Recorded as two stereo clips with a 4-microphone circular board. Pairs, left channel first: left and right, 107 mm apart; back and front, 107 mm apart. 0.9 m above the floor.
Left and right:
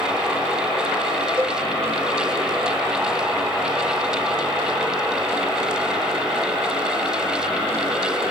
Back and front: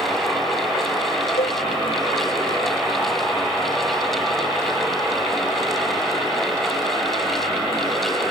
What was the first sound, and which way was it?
A cowbell, 165° right.